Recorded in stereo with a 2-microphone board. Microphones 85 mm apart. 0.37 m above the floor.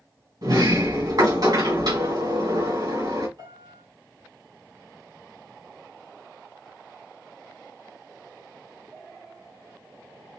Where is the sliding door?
55° right (ahead or behind), 1.9 m.